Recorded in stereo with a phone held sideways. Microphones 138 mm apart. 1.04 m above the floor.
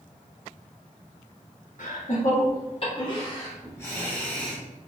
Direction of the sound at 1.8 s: 70° left (ahead or behind).